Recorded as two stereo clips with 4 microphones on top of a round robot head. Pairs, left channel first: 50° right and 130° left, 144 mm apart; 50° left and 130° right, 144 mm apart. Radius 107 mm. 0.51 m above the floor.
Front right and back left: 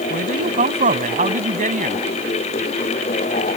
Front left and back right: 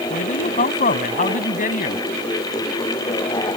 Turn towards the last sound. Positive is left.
turn(degrees=90)